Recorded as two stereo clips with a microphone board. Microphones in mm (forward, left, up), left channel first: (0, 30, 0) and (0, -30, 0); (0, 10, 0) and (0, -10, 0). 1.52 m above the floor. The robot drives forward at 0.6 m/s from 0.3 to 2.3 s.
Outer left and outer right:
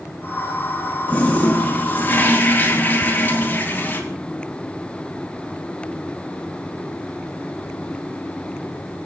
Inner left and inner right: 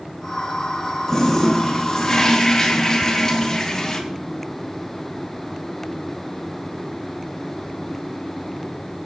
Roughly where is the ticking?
Right.